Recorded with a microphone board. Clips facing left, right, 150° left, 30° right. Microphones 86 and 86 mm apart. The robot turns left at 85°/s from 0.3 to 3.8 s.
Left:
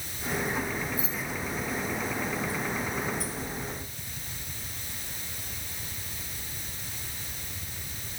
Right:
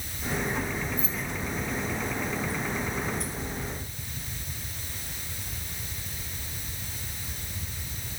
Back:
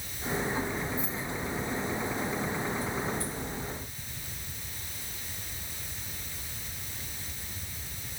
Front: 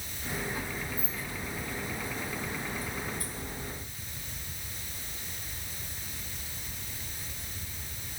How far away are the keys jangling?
About 3 m.